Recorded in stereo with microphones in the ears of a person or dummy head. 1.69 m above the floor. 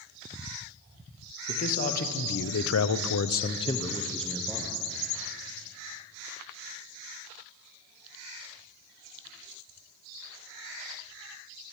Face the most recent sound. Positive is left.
turn(degrees=-5)  # may be behind; listen again after turning